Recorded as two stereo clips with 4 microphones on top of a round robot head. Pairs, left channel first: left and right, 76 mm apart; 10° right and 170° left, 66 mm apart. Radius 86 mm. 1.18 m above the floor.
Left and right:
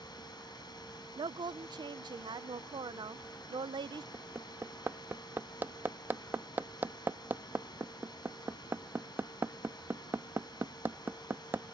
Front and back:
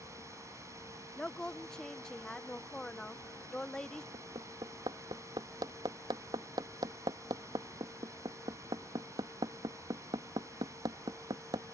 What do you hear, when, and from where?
0.0 s running water: 125° left
1.2 s a woman speaking: 90° right
4.1 s hammering: 155° right